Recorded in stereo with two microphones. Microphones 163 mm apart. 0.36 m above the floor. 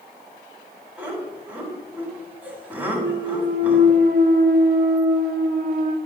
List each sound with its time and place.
1.0 s laughter: 10° right (ahead or behind), 2.5 m
2.9 s a clunk: 60° right (ahead or behind), 0.6 m